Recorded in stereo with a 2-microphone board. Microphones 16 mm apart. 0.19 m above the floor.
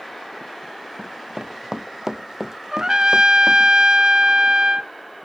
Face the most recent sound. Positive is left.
turn(degrees=-50)  # may be behind; listen again after turning